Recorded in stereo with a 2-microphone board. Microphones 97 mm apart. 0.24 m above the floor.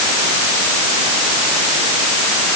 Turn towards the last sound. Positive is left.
No sound to turn to.